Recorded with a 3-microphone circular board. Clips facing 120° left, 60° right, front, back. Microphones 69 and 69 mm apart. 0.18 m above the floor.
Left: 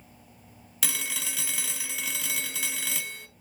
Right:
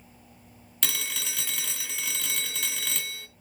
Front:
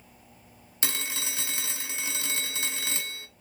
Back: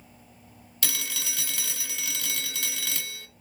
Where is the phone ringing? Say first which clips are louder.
Even, front 1 dB; 35° left, 0.7 m.